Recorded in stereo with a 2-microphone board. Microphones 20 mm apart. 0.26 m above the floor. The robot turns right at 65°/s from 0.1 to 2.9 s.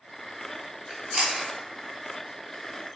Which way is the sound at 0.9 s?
35° right (ahead or behind).